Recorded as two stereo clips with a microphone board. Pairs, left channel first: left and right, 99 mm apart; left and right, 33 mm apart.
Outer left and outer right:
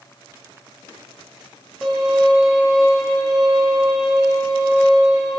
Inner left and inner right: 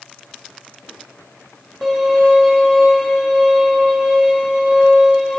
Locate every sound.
1.8 s a violin: centre (ahead or behind), 4 m